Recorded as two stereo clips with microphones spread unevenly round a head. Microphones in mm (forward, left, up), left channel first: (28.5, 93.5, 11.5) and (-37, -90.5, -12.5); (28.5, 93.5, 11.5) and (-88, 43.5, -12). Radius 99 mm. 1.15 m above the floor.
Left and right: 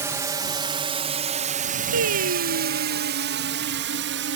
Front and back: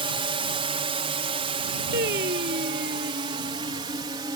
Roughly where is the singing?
Behind right.